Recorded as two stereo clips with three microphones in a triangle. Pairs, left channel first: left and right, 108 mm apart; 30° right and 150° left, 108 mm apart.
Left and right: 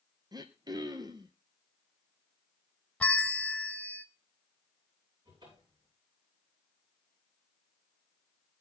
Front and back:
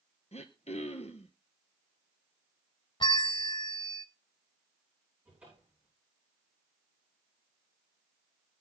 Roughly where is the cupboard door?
Behind right.